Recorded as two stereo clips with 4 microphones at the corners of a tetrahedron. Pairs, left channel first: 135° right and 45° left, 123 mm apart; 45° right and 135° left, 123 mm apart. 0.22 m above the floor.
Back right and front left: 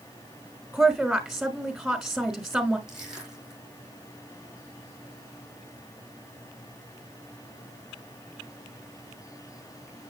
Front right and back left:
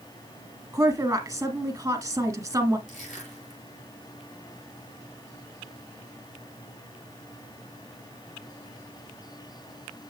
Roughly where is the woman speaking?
Behind left.